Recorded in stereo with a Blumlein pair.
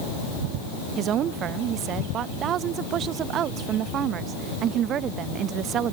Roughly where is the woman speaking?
Ahead right.